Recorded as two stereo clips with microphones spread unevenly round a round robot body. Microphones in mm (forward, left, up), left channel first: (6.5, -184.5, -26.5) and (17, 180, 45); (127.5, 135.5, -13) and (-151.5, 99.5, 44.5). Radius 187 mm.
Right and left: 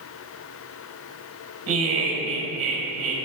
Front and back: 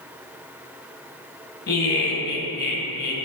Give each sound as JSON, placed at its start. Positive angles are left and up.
{"t": 1.7, "sound": "laughter", "azimuth_deg": 40, "distance_m": 2.5}